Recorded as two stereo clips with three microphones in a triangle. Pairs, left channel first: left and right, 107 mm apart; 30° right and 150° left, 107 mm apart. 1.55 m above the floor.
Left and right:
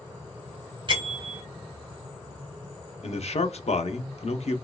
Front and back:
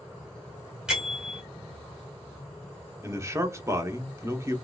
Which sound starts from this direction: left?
A man speaking, at 3.0 s.